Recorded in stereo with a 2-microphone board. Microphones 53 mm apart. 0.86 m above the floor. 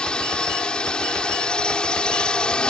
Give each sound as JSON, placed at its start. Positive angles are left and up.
{"t": 0.0, "sound": "a drone", "side_deg": 20}